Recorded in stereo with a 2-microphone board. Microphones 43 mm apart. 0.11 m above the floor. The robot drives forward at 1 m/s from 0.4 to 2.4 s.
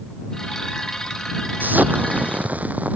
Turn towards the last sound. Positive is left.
turn(degrees=-40)  # may be behind; listen again after turning